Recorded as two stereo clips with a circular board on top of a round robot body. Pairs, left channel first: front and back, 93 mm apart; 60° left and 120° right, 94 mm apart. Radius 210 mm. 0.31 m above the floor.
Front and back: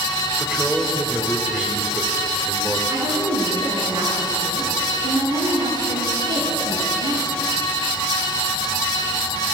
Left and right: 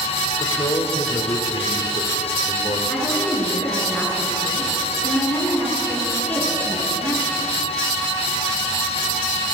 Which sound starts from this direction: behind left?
A woman speaking, at 2.9 s.